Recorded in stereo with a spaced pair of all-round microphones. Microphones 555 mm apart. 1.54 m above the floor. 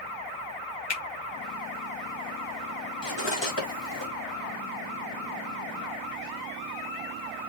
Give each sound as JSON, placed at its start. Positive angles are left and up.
{"t": 0.9, "sound": "a finger snap", "side_deg": 50, "distance_m": 1.1}
{"t": 3.0, "sound": "cutlery clinking", "side_deg": 50, "distance_m": 1.6}